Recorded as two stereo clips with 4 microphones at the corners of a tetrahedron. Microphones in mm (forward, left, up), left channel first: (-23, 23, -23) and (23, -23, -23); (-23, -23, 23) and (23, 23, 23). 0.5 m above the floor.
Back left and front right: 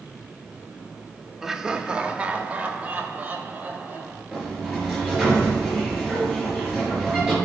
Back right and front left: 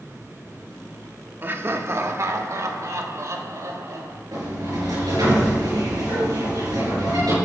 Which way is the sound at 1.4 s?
35° left.